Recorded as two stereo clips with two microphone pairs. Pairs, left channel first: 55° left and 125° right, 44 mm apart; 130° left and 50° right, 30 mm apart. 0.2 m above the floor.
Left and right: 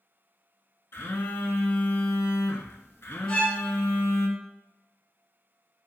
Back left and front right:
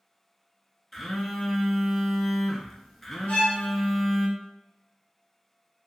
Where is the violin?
130° left, 1.4 m.